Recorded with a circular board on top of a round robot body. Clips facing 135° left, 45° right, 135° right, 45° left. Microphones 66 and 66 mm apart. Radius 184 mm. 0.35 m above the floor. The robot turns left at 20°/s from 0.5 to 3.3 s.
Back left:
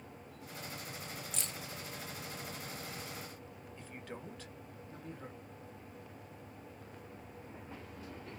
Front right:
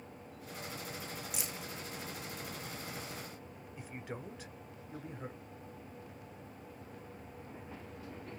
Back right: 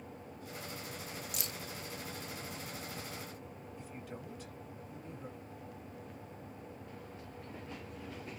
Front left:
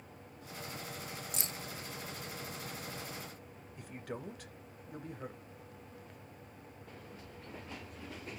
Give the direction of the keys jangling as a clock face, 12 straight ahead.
11 o'clock.